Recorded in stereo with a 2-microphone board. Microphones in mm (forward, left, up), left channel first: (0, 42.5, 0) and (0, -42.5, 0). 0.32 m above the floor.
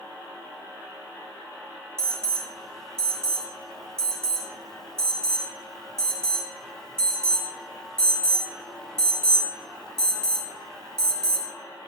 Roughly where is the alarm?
Centre.